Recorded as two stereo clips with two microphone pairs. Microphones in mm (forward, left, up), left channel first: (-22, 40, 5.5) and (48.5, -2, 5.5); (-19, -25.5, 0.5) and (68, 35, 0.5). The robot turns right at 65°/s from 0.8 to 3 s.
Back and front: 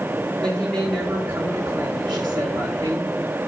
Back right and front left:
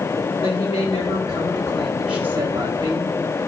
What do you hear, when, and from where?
0.4 s a woman speaking: 130° right, 3.5 m; by 3.1 s 15° left, 3.5 m